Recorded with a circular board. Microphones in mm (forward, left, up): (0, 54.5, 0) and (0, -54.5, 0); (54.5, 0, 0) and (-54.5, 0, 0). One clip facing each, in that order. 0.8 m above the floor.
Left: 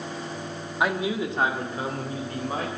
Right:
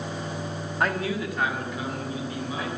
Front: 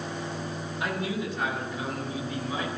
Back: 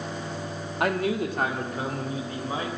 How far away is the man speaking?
About 1.6 m.